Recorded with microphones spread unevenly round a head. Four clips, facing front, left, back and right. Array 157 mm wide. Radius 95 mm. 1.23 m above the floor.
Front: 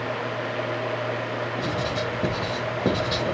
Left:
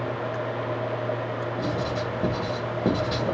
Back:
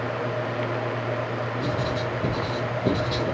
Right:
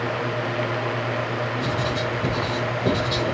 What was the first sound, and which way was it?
Writing, 20° left.